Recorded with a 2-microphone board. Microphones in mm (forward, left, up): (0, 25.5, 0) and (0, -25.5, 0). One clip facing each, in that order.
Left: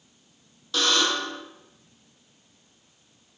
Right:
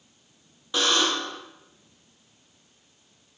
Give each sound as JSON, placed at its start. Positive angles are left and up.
{"t": 0.7, "sound": "a buzzer", "side_deg": -15, "distance_m": 0.7}